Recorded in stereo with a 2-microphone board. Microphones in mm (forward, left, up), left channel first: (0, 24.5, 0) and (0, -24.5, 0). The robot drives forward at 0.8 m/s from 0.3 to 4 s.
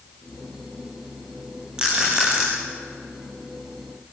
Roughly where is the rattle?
Centre.